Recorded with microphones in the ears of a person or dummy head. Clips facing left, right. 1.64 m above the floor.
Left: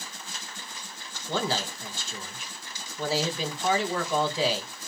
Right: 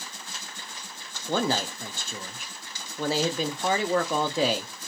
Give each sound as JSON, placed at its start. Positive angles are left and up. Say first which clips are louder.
{"t": 1.3, "sound": "a man speaking", "louder": "right 3 dB", "side_deg": -50, "distance_m": 0.7}